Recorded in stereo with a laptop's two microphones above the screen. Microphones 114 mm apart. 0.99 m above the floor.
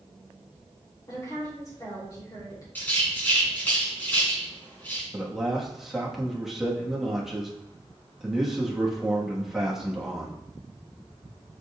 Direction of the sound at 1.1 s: 30° left (ahead or behind).